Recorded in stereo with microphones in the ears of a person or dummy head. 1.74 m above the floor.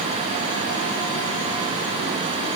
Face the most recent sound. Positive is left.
No sound to turn to.